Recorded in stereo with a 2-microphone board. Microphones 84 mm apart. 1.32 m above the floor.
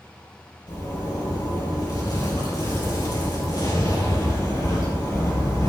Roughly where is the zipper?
Left.